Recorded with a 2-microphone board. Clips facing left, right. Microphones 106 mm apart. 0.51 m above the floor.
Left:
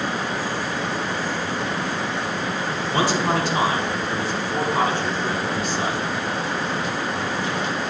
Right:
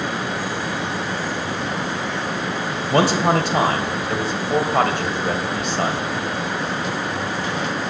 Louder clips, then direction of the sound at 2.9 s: Right 5 dB; 70° right (ahead or behind).